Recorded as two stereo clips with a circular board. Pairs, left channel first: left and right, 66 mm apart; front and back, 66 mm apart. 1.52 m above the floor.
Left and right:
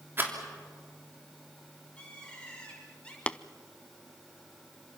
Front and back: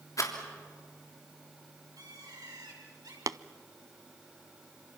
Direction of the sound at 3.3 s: 160° left.